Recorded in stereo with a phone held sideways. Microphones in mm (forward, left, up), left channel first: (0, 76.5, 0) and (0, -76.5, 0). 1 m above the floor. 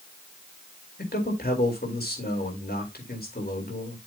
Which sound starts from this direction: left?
A man speaking, at 1.0 s.